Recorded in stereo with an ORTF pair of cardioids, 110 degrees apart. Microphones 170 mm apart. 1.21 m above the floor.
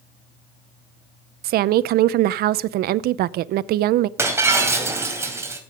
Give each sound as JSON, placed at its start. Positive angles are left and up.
{"t": 1.4, "sound": "a woman speaking", "azimuth_deg": -70, "distance_m": 0.6}
{"t": 4.2, "sound": "breaking glass", "azimuth_deg": -15, "distance_m": 3.0}